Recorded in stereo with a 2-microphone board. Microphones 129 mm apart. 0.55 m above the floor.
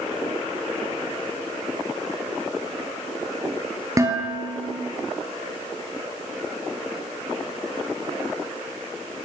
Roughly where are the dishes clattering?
Right.